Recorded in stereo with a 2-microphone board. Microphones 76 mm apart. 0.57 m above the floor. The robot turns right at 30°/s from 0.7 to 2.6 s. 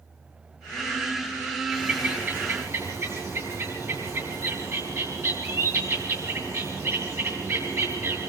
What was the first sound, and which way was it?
A bird, 15° right (ahead or behind).